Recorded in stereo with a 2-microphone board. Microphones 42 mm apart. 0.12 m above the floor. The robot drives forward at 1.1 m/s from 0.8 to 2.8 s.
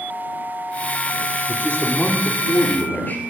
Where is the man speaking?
30° left (ahead or behind), 2.5 m; by 3.2 s 45° left (ahead or behind), 1.8 m.